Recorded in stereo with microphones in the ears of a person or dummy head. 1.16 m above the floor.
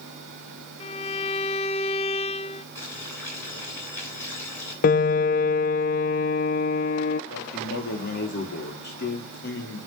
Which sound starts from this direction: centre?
Boiling, at 2.8 s.